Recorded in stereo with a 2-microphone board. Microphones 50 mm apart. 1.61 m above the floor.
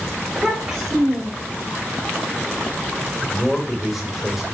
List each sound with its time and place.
0.3 s a child speaking: 15° right (ahead or behind), 5 m; by 1.6 s 20° right (ahead or behind), 4 m
3.3 s a man speaking: centre (ahead or behind), 6 m